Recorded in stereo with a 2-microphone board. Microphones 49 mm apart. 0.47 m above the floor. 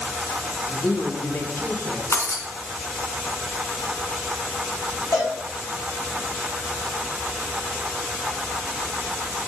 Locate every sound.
0.7 s a man speaking: 50° left (ahead or behind), 4.5 m; by 2.0 s 35° left (ahead or behind), 5 m
2.1 s breaking glass: 65° left (ahead or behind), 2.5 m
5.1 s a cowbell: 70° left (ahead or behind), 7 m